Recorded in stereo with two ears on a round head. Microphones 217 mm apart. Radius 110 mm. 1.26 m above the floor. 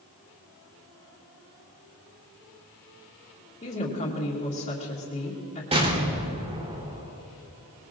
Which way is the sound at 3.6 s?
30° left (ahead or behind).